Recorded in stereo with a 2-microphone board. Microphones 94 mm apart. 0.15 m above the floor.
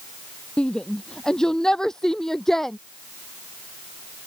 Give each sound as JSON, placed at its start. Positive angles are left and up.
{"t": 0.6, "sound": "a shout", "side_deg": 10}